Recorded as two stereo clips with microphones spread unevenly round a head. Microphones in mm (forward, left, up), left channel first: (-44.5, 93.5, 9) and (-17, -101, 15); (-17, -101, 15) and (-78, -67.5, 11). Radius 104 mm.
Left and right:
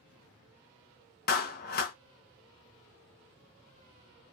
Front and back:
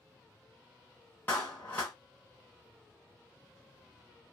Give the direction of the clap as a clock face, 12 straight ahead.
10 o'clock.